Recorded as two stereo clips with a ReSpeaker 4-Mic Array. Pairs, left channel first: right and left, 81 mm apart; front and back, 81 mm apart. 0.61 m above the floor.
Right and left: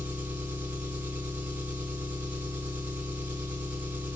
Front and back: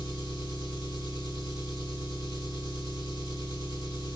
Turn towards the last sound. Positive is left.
turn(degrees=160)